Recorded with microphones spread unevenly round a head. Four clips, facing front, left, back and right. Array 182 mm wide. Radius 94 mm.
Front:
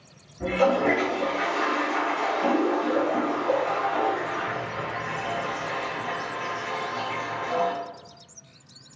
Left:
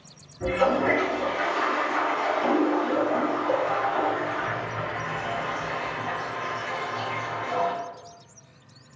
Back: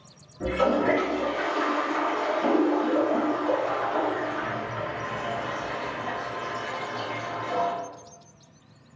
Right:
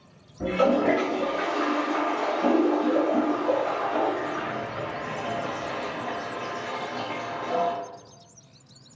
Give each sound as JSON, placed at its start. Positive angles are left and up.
{"t": 0.4, "sound": "a toilet flushing", "azimuth_deg": -95, "distance_m": 1.9}